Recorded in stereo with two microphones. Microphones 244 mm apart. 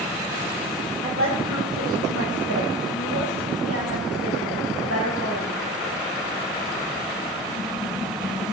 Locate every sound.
1.0 s a woman speaking: 60° right (ahead or behind), 5.5 m; by 5.6 s 75° right (ahead or behind), 6 m